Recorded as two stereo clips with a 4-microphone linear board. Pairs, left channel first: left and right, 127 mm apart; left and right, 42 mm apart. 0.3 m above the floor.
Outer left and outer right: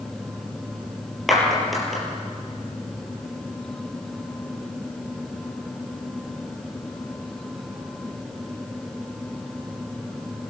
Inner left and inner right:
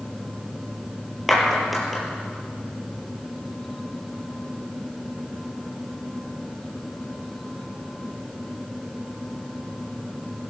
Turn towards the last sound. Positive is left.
turn(degrees=0)  # may be behind; listen again after turning